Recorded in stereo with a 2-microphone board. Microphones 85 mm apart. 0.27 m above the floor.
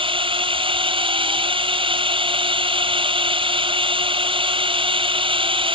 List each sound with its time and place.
0.0 s a drone: 75° right (ahead or behind)